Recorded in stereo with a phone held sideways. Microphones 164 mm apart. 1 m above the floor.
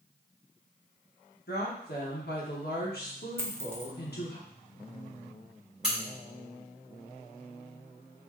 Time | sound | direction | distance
1.5 | a woman speaking | 80° left | 1.2 m
3.4 | a dropped coin | 15° right (ahead or behind) | 0.5 m
5.8 | a crack | 5° right (ahead or behind) | 1.9 m